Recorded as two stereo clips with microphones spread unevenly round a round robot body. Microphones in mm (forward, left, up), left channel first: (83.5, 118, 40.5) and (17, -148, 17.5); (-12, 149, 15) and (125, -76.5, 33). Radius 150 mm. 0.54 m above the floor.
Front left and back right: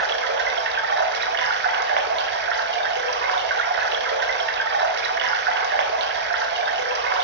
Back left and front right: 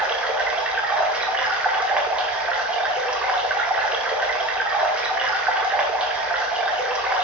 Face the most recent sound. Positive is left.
turn(degrees=-145)